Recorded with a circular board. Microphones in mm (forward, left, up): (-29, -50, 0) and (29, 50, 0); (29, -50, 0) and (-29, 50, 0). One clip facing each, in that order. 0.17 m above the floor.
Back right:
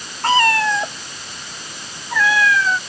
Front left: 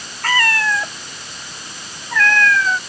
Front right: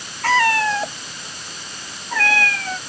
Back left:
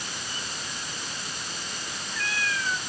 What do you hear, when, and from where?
0.2 s a cat meowing: 55° right; by 2.8 s 30° right